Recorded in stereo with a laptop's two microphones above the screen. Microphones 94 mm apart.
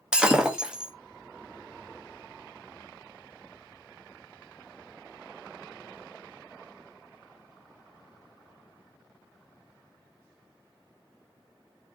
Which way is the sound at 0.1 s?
10° right (ahead or behind).